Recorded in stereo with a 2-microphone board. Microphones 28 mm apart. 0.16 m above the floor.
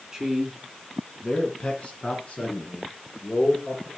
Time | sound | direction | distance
0.1 | a man speaking | 20° right (ahead or behind) | 2 m